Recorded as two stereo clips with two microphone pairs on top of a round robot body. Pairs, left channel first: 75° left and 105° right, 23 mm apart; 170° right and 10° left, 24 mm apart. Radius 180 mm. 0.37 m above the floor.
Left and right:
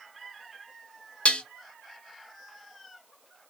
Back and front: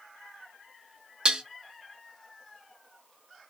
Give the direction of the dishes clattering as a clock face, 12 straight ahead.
10 o'clock.